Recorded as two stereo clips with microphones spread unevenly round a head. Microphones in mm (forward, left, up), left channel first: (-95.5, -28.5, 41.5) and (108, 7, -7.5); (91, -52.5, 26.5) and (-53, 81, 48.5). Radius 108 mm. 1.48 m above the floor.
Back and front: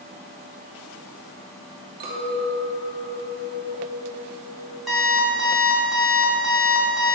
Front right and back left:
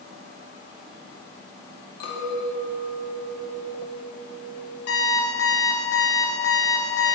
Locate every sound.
2.0 s a clink: 35° right, 2.5 m
4.9 s an alarm clock: 85° right, 2.5 m